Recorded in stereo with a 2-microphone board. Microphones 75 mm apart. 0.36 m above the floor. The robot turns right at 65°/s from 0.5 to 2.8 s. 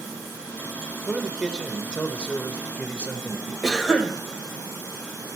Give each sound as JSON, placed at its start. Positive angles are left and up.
{"t": 1.1, "sound": "a man speaking", "side_deg": -5, "distance_m": 0.8}
{"t": 3.6, "sound": "a cough", "side_deg": 0, "distance_m": 1.8}